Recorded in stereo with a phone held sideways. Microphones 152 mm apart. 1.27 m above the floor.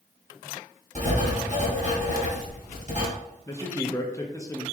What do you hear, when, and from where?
0.9 s writing: 50° right (ahead or behind), 1.7 m
3.5 s a man speaking: 20° left (ahead or behind), 0.5 m